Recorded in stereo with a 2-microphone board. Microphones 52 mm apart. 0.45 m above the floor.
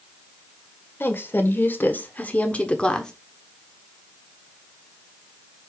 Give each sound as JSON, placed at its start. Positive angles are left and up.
{"t": 1.0, "sound": "a woman speaking", "side_deg": 45, "distance_m": 1.6}